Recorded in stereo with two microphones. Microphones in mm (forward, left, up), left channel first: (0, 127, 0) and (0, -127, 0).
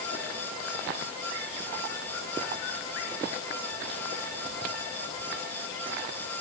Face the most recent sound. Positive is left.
No sound to turn to.